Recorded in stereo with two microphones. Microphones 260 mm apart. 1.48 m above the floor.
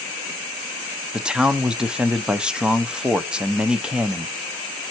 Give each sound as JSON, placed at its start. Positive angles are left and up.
{"t": 1.1, "sound": "a man speaking", "side_deg": -5, "distance_m": 0.6}